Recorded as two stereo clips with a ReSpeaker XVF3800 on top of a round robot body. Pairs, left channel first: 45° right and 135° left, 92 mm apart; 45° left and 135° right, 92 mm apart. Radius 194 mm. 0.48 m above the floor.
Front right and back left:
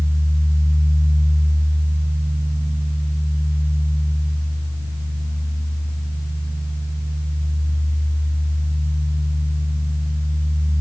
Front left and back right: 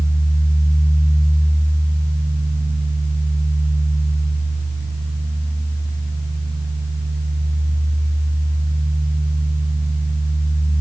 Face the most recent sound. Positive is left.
No sound to turn to.